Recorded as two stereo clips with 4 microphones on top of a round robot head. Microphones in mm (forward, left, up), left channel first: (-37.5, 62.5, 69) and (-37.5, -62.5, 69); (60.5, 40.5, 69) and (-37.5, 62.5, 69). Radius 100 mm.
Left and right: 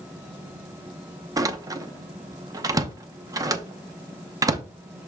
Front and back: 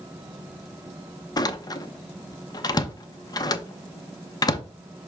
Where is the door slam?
40° right, 0.8 m.